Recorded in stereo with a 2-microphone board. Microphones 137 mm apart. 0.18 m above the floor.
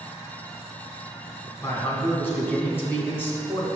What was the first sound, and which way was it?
A man speaking, 15° left (ahead or behind).